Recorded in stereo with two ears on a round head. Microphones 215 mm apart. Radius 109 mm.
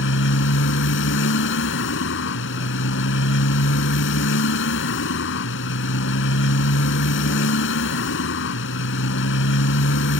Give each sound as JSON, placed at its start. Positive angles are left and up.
{"t": 0.0, "sound": "a motorcycle", "side_deg": 55}